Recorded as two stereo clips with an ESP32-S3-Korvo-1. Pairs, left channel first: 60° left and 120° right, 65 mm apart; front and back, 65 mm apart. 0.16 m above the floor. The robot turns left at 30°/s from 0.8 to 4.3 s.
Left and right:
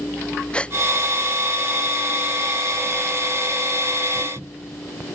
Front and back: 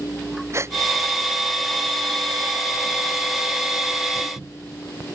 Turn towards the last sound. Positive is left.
turn(degrees=30)